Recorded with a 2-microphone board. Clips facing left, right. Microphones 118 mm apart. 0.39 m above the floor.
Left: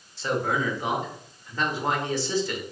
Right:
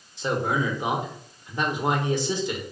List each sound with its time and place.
0.2 s a man speaking: 20° right (ahead or behind), 0.9 m